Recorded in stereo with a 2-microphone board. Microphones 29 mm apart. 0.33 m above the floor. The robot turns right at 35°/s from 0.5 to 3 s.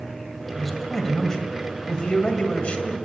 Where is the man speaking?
Straight ahead, 2 m; by 3.0 s 90° left, 2 m.